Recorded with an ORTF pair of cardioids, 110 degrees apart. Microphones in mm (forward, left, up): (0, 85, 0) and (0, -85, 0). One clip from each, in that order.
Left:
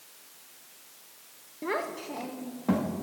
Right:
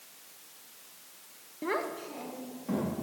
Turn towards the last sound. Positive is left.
turn(degrees=65)